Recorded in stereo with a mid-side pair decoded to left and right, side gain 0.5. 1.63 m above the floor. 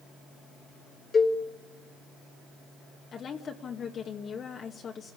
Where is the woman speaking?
45° left, 2.5 m.